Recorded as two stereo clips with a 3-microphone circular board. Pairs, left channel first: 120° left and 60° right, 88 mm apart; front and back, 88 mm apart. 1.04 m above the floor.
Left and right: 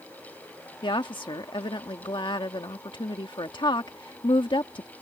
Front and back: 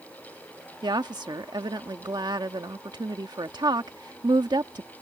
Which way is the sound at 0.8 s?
145° left.